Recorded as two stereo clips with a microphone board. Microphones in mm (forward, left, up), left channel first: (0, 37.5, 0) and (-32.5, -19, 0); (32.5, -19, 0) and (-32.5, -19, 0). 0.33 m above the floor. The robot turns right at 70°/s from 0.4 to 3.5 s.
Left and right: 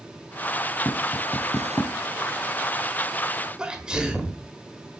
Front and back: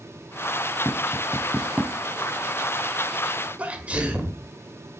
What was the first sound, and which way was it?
Tapping, 35° left.